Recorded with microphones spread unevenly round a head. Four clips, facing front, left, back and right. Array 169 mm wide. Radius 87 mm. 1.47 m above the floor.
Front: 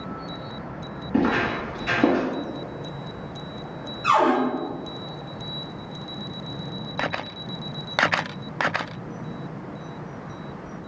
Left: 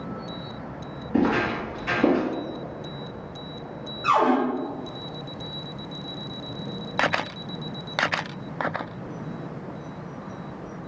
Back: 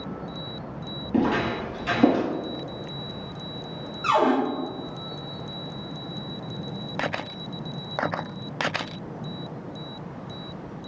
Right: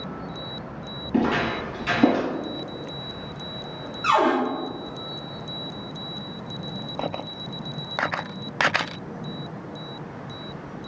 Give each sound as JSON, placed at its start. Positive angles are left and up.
{"t": 1.1, "sound": "footsteps", "azimuth_deg": -140, "distance_m": 2.0}
{"t": 4.0, "sound": "a cupboard door", "azimuth_deg": -155, "distance_m": 1.3}